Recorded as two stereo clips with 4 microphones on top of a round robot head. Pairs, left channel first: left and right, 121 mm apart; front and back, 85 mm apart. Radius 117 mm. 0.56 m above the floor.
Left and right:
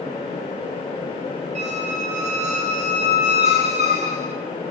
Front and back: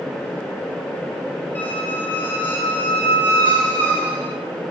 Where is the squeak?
70° right, 0.9 m.